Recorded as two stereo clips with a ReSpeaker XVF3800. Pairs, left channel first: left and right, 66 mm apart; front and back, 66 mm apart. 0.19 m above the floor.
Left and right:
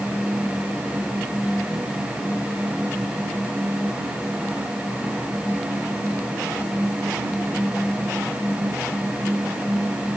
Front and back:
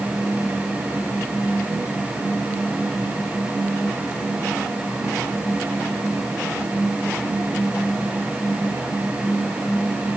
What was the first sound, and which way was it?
Only background noise.